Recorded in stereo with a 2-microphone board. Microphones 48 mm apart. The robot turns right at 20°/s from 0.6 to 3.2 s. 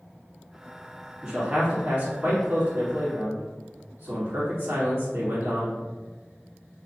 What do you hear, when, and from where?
1.2 s a man speaking: 25° right (ahead or behind), 1.9 m; by 5.8 s 65° right (ahead or behind), 1.9 m